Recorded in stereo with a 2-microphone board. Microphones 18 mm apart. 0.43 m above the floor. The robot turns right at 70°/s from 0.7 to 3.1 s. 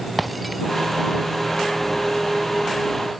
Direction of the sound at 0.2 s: Centre (ahead or behind).